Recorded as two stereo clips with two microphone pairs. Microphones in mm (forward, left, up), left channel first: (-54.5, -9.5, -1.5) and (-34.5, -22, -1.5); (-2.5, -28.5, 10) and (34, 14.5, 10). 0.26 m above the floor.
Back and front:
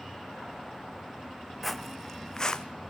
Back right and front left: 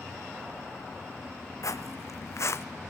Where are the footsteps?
130° right, 0.9 m; by 2.6 s 165° right, 1.0 m.